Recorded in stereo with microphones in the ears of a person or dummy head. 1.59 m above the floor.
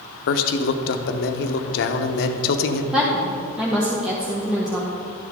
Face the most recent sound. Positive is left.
turn(degrees=-5)  # may be behind; listen again after turning